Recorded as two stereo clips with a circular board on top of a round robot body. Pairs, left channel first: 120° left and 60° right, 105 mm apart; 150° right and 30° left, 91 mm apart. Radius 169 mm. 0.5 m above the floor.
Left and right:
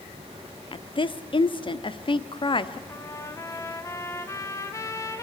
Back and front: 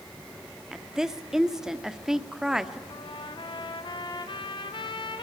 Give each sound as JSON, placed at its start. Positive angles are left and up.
{"t": 0.7, "sound": "a woman speaking", "azimuth_deg": 115, "distance_m": 1.6}
{"t": 2.9, "sound": "a trumpet", "azimuth_deg": 180, "distance_m": 2.5}